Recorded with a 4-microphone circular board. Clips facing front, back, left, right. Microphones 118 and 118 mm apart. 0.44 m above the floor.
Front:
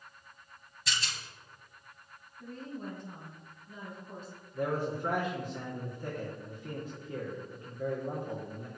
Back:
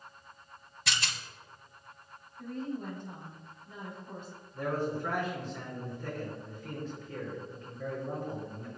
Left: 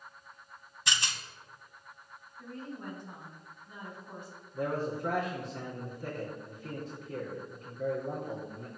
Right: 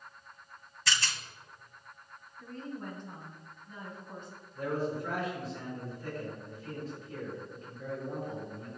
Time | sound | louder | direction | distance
0.9 | a rattle | back 2 dB, right 1 dB | 160° left | 0.7 m
2.4 | a woman speaking | back 5 dB, right 1 dB | 170° left | 3.5 m
4.5 | a man speaking | even, even | 75° left | 4 m